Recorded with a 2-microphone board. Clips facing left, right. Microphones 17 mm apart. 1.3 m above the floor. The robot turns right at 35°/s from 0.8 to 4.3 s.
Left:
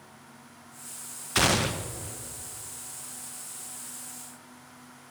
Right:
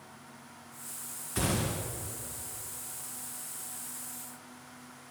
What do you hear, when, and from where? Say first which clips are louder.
1.4 s a gunshot: left 8 dB; 55° left (ahead or behind), 0.6 m; by 2.2 s 65° left (ahead or behind), 0.6 m